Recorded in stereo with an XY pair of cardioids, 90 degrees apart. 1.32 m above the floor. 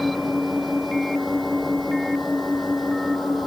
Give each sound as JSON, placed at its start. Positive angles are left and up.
{"t": 0.0, "sound": "an engine running", "azimuth_deg": 15}